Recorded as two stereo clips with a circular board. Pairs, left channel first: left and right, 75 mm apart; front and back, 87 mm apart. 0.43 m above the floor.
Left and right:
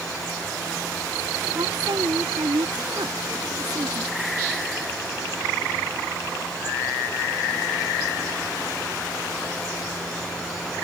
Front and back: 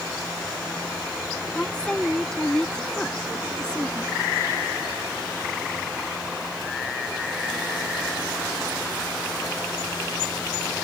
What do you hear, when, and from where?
1.6 s a woman speaking: 80° right